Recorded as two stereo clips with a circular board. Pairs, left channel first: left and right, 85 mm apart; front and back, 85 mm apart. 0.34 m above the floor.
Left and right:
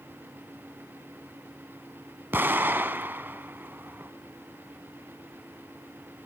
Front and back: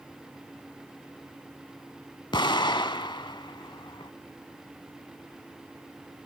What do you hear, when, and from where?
2.3 s an explosion: 25° right, 0.6 m